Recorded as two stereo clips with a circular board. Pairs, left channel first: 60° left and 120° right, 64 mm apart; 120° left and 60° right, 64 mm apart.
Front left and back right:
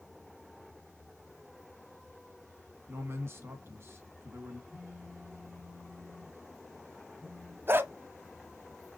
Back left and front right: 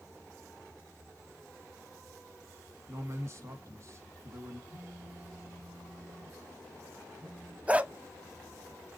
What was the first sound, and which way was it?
A man speaking, 85° right.